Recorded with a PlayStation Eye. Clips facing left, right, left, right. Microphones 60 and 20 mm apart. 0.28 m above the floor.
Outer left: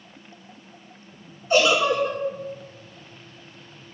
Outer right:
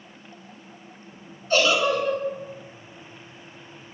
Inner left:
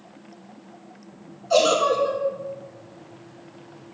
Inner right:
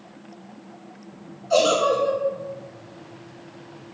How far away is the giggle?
About 0.9 m.